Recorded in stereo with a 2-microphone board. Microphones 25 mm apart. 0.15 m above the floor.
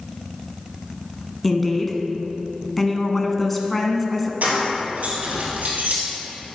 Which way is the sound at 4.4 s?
70° right (ahead or behind).